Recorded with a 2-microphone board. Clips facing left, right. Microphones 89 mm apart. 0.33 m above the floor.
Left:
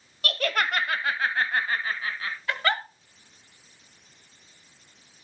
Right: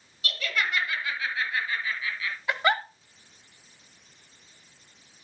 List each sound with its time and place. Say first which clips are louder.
0.2 s laughter: left 4 dB; 50° left (ahead or behind), 1.5 m; by 2.4 s 40° left (ahead or behind), 2.5 m
2.5 s a giggle: right 2 dB; 15° right (ahead or behind), 1.6 m